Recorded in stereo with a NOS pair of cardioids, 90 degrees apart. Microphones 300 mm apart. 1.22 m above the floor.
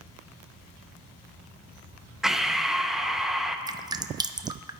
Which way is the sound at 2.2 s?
Straight ahead.